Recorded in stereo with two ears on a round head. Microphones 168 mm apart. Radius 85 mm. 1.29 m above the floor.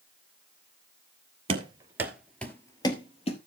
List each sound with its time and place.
1.5 s running footsteps: 30° right (ahead or behind), 1.4 m; by 3.4 s 35° left (ahead or behind), 1.7 m